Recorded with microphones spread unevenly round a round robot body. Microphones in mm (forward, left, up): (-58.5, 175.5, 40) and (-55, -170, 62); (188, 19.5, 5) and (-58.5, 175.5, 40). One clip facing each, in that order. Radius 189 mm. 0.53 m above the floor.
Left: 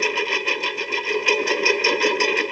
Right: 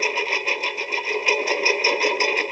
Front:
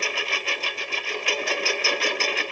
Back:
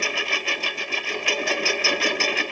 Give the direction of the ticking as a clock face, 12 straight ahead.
I don't hear ticking.